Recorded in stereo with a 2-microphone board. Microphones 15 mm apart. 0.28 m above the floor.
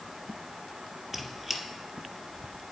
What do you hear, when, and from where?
1.1 s a squeak: 5° right (ahead or behind), 0.8 m